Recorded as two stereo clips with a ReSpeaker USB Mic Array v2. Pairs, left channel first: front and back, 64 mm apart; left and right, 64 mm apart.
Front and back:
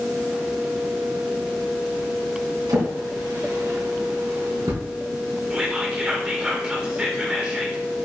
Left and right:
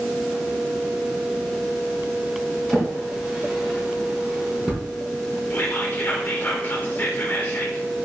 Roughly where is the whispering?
Behind left.